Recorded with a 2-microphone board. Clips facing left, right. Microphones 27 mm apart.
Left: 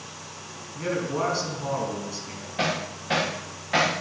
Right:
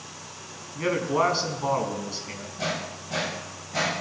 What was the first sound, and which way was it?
A man speaking, 30° right (ahead or behind).